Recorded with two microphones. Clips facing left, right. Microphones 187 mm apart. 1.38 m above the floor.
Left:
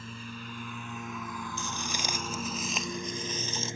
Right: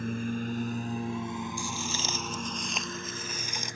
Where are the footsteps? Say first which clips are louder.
Right 2 dB; 20° left (ahead or behind); by 3.8 s 20° right (ahead or behind).